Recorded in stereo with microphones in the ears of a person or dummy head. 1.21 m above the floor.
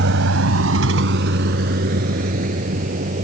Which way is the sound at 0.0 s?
70° right (ahead or behind).